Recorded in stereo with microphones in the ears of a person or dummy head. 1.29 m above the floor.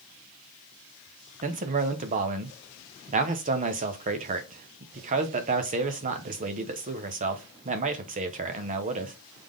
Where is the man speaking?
35° right (ahead or behind), 0.6 m.